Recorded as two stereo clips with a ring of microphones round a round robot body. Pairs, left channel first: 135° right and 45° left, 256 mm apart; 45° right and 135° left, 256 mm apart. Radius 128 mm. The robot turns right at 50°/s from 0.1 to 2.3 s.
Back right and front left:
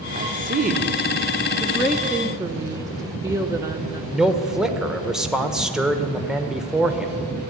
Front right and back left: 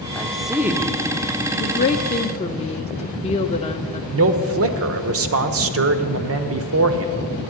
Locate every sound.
0.1 s a woman speaking: 35° left, 0.8 m; by 1.0 s 75° left, 0.8 m
1.6 s a woman speaking: 50° right, 0.7 m; by 4.0 s 15° right, 0.7 m
4.1 s a man speaking: 130° left, 1.2 m